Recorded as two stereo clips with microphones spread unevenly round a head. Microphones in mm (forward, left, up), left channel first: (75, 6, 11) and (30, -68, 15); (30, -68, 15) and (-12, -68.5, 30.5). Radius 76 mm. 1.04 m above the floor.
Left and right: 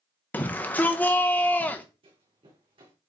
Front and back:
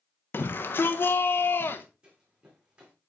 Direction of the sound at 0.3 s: 10° right.